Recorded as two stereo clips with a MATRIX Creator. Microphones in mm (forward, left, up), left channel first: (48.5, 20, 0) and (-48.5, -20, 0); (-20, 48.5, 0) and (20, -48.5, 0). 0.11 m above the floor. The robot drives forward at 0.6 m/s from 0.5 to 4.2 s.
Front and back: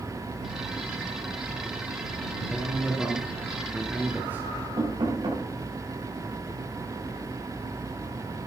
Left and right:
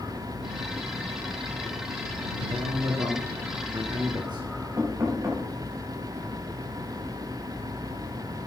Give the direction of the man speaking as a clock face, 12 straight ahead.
2 o'clock.